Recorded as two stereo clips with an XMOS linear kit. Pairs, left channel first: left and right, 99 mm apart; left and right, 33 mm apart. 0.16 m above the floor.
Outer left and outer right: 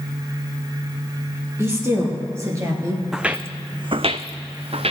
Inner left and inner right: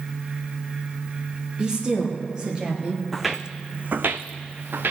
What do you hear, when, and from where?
1.6 s a woman speaking: 25° right (ahead or behind), 4 m; by 3.0 s 30° right (ahead or behind), 2 m
3.1 s footsteps: 5° right (ahead or behind), 0.6 m; by 4.9 s 75° right (ahead or behind), 1.0 m